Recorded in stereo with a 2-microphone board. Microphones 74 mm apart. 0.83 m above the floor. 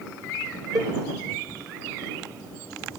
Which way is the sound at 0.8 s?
65° right (ahead or behind).